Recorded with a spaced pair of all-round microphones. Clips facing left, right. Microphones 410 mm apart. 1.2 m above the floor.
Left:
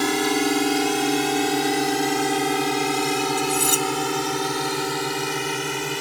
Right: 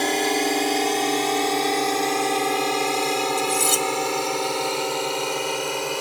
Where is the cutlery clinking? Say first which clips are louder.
Left 1 dB; 15° right (ahead or behind).